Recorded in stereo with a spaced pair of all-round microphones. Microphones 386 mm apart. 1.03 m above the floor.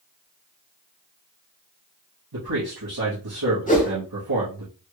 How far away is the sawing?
No sawing in this recording.